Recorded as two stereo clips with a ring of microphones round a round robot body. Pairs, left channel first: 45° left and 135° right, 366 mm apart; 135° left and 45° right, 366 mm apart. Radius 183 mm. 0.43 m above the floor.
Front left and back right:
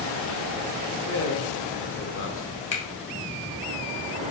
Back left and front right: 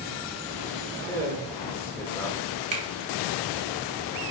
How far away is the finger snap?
About 0.8 m.